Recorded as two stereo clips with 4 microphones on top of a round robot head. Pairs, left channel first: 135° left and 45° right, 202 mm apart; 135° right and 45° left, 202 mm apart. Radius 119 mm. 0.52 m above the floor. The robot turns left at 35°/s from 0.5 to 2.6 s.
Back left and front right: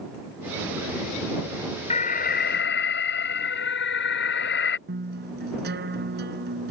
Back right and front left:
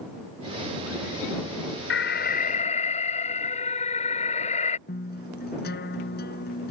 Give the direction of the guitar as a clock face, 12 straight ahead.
3 o'clock.